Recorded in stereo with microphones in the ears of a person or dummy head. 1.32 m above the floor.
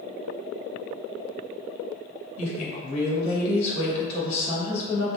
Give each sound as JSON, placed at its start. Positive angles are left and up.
{"t": 2.4, "sound": "a woman speaking", "side_deg": 40, "distance_m": 1.5}